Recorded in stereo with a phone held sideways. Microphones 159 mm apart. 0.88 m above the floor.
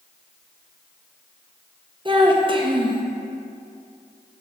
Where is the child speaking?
30° right (ahead or behind), 0.7 m.